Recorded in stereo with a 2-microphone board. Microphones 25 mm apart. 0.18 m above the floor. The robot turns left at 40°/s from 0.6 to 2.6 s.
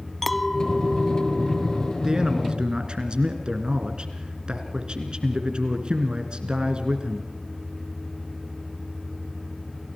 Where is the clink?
5° left, 0.7 m; by 1.9 s 50° right, 0.7 m.